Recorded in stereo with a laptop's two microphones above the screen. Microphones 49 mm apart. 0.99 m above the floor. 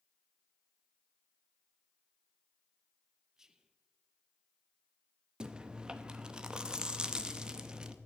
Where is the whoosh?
No whoosh in this recording.